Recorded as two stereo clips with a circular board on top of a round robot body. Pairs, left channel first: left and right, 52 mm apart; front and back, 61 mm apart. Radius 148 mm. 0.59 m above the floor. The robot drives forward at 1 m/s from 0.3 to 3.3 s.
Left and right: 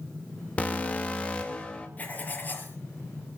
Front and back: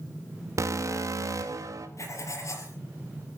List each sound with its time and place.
0.6 s an alarm: 155° left, 3 m; by 1.9 s 160° left, 4 m
2.0 s writing: 30° left, 5 m; by 2.8 s 35° left, 4.5 m